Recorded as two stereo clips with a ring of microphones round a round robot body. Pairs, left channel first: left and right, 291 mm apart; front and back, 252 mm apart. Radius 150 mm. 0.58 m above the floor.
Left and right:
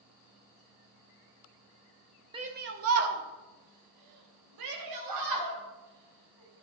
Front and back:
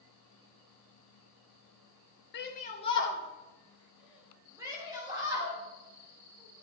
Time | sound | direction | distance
2.3 | a shout | 25° right | 1.0 m